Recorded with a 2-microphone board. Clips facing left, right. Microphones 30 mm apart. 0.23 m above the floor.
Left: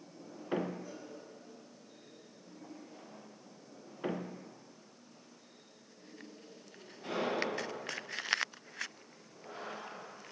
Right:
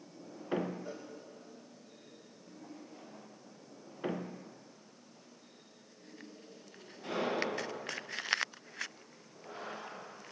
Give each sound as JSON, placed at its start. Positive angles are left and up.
{"t": 0.8, "sound": "a cowbell", "side_deg": -45, "distance_m": 4.5}